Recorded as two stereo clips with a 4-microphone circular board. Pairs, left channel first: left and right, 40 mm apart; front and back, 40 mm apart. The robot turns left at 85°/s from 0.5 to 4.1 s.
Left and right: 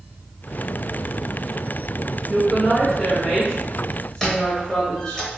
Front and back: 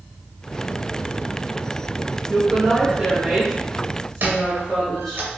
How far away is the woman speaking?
About 0.8 m.